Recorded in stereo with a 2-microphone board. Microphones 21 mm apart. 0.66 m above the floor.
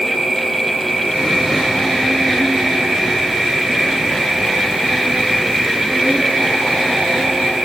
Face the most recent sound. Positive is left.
turn(degrees=-30)  # may be behind; listen again after turning